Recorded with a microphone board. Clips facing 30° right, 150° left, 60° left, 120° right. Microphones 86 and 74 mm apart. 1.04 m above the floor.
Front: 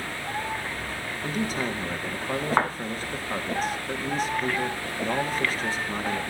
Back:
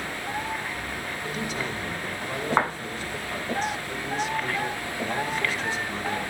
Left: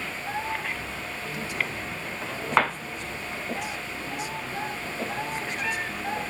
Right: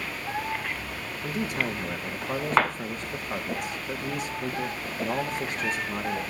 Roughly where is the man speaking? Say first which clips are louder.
Front 4 dB, right 4 dB; right.